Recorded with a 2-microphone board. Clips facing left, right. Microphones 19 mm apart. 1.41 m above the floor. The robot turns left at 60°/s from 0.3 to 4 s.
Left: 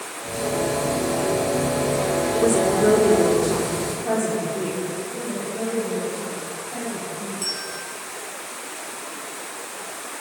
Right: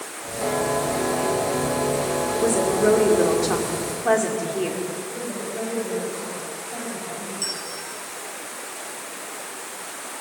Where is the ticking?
I don't hear ticking.